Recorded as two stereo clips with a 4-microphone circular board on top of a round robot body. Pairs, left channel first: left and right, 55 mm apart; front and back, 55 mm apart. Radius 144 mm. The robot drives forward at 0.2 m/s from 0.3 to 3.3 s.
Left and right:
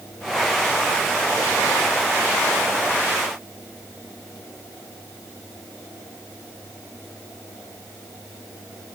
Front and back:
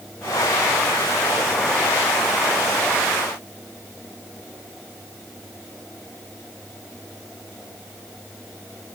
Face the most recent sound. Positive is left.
No sound to turn to.